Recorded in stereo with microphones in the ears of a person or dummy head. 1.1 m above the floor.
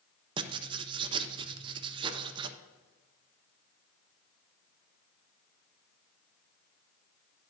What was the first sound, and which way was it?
Writing, 25° right (ahead or behind).